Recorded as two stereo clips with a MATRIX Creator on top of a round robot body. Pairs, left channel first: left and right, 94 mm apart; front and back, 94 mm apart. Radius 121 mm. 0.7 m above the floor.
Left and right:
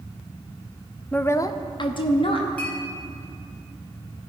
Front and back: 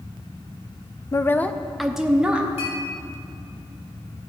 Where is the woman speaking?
20° left, 0.6 m; by 2.5 s 100° left, 1.3 m.